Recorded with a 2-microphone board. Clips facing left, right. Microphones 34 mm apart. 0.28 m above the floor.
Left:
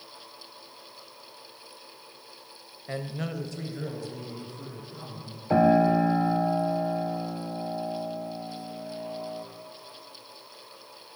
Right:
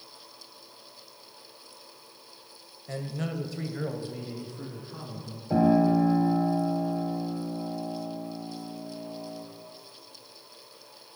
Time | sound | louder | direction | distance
2.9 | a man speaking | even | 30° left (ahead or behind) | 1.0 m
5.5 | a piano | left 2 dB | 45° left (ahead or behind) | 1.4 m